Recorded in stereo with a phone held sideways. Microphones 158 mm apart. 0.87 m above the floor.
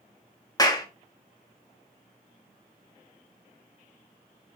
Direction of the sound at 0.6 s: 25° left (ahead or behind).